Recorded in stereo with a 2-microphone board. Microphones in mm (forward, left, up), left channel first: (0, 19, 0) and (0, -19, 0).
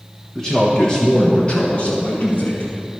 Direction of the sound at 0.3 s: 5° left (ahead or behind).